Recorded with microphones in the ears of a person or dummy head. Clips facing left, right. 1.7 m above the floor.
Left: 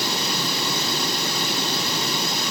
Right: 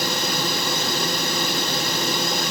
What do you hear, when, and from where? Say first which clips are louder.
0.0 s a drone: right 2 dB; 45° right (ahead or behind)